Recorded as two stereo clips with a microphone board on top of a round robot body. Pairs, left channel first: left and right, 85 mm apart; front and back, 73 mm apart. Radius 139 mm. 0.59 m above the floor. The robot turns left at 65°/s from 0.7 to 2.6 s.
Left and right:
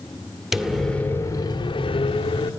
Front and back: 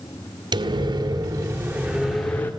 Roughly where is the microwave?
Behind.